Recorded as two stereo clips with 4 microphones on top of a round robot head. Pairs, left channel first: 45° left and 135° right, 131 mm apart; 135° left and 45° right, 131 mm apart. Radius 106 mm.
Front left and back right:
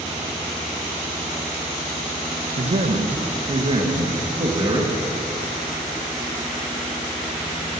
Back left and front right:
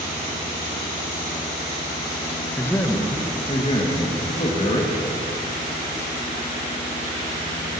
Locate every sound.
2.6 s a man speaking: 150° right, 0.9 m; by 4.9 s 165° left, 1.6 m